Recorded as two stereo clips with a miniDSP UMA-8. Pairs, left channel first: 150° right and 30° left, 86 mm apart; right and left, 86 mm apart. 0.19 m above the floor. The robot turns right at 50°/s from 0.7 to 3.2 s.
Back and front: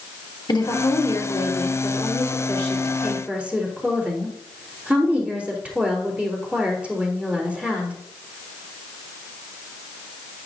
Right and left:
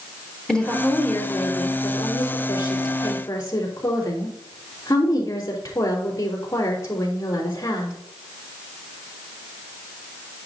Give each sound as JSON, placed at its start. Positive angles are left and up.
{"t": 0.5, "sound": "a woman speaking", "azimuth_deg": -170, "distance_m": 3.5}